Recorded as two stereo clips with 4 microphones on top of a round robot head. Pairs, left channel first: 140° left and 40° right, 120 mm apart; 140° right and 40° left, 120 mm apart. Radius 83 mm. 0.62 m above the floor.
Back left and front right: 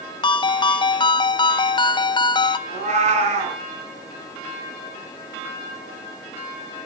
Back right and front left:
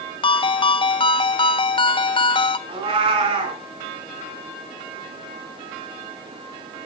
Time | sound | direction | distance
0.2 | a ringtone | 175° right | 0.7 m
2.7 | a cat meowing | 5° right | 4 m